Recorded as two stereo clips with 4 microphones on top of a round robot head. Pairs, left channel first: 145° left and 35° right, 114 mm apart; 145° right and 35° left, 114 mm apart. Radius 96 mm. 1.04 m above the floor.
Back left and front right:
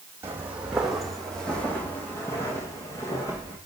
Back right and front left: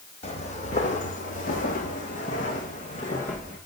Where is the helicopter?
No helicopter in this recording.